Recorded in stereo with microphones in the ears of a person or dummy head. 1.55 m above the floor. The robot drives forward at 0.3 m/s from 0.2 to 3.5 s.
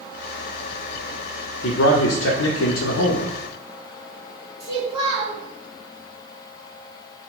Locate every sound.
1.6 s a man speaking: 60° left (ahead or behind), 0.7 m; by 3.3 s 75° left (ahead or behind), 0.6 m
4.6 s a child speaking: 35° right (ahead or behind), 1.3 m